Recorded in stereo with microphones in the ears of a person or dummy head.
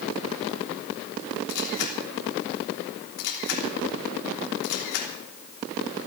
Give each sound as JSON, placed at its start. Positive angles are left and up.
{"t": 1.5, "sound": "a camera shutter", "side_deg": 60, "distance_m": 3.0}